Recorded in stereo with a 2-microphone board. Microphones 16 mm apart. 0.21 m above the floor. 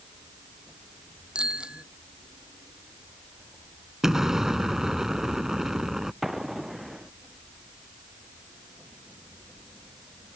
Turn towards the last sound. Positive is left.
turn(degrees=-15)  # may be behind; listen again after turning